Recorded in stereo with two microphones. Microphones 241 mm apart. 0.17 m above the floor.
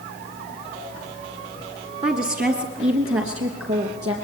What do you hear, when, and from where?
2.0 s a woman speaking: 25° right (ahead or behind), 2.0 m; by 4.1 s 75° right (ahead or behind), 4 m